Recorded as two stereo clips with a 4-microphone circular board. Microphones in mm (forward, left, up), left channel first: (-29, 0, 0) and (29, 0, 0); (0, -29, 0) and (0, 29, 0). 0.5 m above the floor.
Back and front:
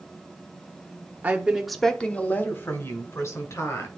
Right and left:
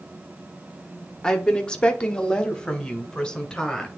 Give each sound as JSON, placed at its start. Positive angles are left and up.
{"t": 1.2, "sound": "a woman speaking", "azimuth_deg": -30, "distance_m": 1.2}